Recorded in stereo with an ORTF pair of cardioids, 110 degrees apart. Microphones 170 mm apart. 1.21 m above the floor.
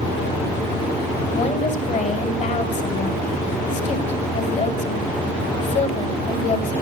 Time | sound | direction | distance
1.3 | a woman speaking | 45° left | 6.5 m